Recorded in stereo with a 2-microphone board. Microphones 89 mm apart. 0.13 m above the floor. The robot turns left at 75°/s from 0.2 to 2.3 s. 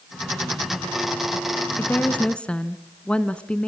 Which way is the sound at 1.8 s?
25° left (ahead or behind).